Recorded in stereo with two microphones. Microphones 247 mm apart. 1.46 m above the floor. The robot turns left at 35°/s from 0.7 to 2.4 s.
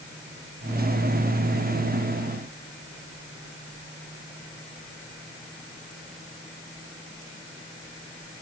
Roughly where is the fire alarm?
No fire alarm in this recording.